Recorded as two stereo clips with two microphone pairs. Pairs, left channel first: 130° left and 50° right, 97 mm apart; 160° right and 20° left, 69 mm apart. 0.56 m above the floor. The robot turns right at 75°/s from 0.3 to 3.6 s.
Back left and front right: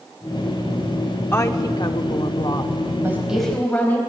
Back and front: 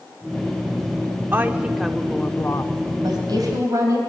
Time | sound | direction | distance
1.3 | a woman speaking | 70° left | 1.1 m
3.0 | a woman speaking | 15° left | 3.5 m